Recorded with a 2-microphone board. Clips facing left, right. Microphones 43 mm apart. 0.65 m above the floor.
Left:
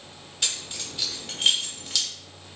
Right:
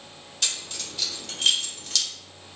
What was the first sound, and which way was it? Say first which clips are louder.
Keys jangling: even; 5° left (ahead or behind).